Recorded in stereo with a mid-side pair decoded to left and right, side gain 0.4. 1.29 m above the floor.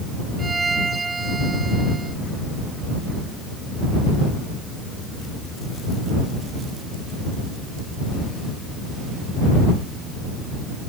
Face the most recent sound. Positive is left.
turn(degrees=-30)